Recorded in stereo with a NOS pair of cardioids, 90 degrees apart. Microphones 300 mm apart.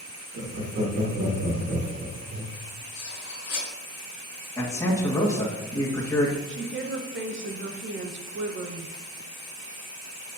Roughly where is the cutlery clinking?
Ahead left.